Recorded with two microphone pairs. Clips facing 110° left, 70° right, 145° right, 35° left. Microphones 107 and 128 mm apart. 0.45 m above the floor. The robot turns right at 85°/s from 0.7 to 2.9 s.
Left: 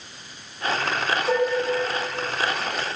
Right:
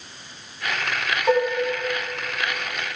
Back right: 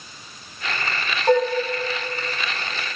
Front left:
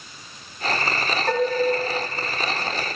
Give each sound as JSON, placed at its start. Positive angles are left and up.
{"t": 1.3, "sound": "dishes clattering", "azimuth_deg": -75, "distance_m": 1.8}